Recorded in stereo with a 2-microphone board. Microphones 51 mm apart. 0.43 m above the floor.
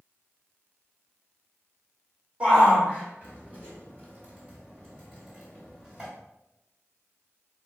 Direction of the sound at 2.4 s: 25° right (ahead or behind).